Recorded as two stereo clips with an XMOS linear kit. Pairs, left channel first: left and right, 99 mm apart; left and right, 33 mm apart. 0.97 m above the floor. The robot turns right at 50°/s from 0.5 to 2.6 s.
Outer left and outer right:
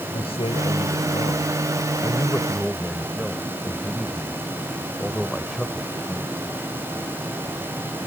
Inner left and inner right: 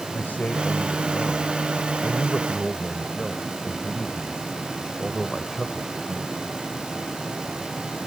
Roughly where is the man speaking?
Left.